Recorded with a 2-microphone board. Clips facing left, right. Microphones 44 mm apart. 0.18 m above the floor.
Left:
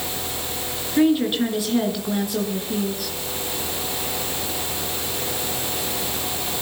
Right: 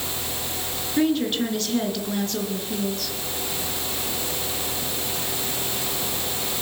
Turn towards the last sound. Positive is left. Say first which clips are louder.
# left 4 dB
turn(degrees=10)  # may be behind; listen again after turning